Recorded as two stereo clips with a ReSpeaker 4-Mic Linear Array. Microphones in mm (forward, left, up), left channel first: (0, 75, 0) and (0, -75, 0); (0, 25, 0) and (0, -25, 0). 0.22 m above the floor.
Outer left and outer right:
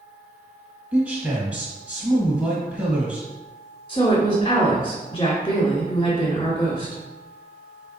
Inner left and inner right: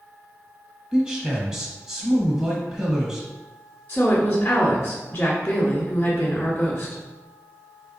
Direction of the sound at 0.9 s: 10° right (ahead or behind).